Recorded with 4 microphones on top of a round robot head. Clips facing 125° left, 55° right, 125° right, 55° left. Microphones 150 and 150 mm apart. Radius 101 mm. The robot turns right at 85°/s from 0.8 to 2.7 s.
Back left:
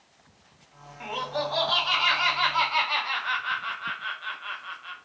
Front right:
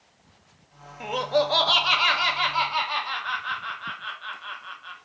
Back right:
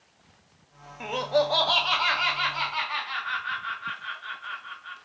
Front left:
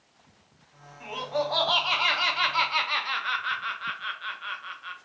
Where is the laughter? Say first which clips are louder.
Front right 7 dB, back right 5 dB; 105° right, 0.6 m; by 5.0 s 40° left, 0.6 m.